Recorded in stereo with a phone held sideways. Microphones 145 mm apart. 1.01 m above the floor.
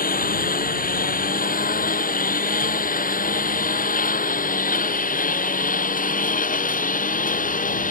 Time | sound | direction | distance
0.0 | a lawn mower | 75° left (ahead or behind) | ?